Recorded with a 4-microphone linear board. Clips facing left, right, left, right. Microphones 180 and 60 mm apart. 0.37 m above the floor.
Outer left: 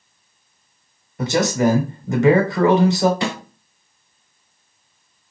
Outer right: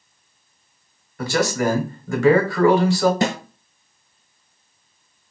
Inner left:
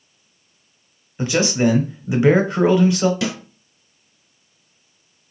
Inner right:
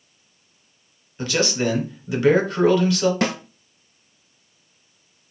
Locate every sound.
1.2 s a man speaking: 20° left (ahead or behind), 0.9 m
3.2 s a snare drum: 40° right (ahead or behind), 0.5 m